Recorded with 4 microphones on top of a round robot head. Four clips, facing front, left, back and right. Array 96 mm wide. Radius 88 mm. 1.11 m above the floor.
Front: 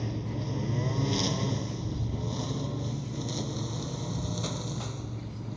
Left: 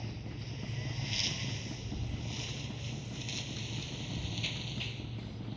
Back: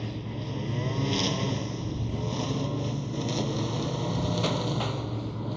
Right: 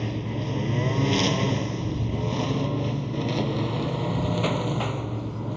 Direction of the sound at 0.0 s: 85° right.